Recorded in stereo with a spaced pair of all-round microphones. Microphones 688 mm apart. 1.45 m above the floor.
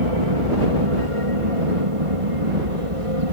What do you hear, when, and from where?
0.0 s an aircraft: 50° right (ahead or behind)